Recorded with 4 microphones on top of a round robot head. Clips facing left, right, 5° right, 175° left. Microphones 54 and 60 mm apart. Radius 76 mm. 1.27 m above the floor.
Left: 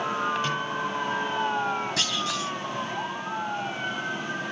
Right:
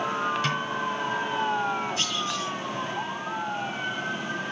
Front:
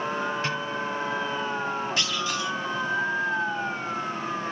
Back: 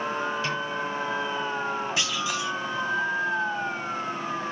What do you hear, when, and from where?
0.4 s a snare drum: 65° right, 4 m
2.0 s a clunk: 95° left, 2.5 m